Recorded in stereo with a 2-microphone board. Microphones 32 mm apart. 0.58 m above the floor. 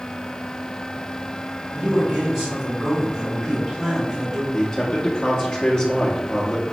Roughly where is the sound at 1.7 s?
Right.